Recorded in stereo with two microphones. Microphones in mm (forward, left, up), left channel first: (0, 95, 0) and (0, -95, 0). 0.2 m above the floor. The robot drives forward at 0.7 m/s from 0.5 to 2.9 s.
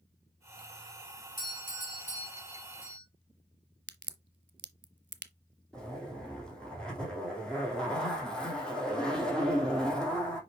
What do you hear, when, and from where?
1.4 s a doorbell: 50° left (ahead or behind), 4.5 m; by 3.0 s 45° left (ahead or behind), 5 m
3.9 s a crack: 80° right, 0.7 m
5.7 s a zipper: 5° left (ahead or behind), 2.5 m